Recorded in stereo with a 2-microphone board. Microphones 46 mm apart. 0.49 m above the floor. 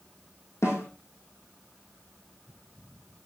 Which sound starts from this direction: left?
A snare drum, at 0.6 s.